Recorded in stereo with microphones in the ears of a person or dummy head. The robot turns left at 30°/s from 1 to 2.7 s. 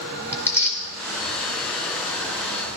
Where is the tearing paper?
15° left (ahead or behind), 1.7 m.